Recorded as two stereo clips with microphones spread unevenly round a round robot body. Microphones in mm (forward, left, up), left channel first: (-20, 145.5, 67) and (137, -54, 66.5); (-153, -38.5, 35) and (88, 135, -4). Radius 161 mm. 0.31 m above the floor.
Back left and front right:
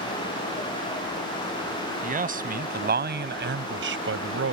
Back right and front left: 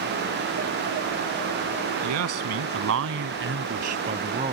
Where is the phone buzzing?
I don't hear a phone buzzing.